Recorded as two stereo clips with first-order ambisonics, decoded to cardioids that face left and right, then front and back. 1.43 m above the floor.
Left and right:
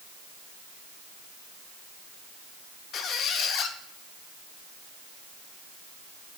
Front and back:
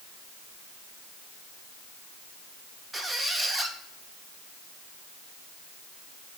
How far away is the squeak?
About 0.5 m.